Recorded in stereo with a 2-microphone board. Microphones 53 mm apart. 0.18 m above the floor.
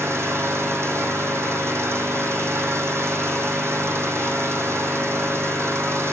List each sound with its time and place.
0.0 s an engine running: 60° right (ahead or behind), 2.5 m